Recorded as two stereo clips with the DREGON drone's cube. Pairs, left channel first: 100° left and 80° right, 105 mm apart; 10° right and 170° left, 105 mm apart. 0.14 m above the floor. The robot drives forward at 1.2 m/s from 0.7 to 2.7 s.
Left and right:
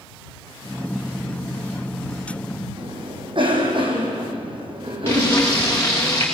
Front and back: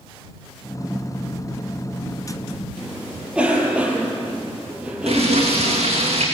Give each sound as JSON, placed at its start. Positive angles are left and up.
{"t": 2.8, "sound": "a cough", "azimuth_deg": -110, "distance_m": 5.0}
{"t": 5.1, "sound": "frying", "azimuth_deg": 165, "distance_m": 6.0}